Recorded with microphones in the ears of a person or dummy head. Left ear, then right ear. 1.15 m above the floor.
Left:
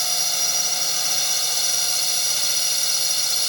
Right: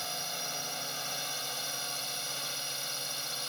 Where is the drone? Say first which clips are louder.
Left 14 dB; 35° left (ahead or behind).